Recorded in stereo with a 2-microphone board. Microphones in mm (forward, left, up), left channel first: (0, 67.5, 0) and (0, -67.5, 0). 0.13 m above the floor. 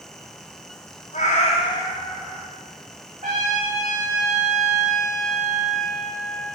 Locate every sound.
1.1 s a cat meowing: 75° left (ahead or behind), 1.3 m; by 2.5 s 20° right (ahead or behind), 1.5 m
3.2 s a trumpet: 75° right (ahead or behind), 3.5 m